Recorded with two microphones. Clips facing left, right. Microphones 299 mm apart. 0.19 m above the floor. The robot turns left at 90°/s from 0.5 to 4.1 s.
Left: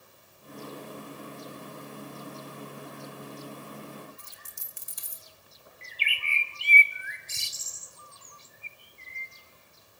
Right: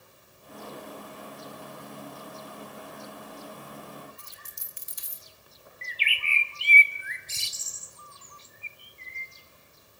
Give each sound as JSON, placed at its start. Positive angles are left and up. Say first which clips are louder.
{"t": 4.2, "sound": "a dropped coin", "louder": "right 1 dB", "side_deg": 60, "distance_m": 1.3}
{"t": 5.8, "sound": "a bird", "louder": "right 2 dB", "side_deg": 55, "distance_m": 1.6}